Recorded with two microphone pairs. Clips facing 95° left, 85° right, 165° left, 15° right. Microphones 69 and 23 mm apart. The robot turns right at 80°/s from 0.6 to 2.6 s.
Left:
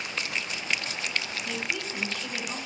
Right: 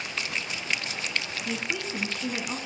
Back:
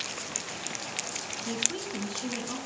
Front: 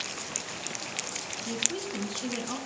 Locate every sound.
1.4 s a woman speaking: 150° right, 1.1 m; by 2.6 s 60° right, 1.1 m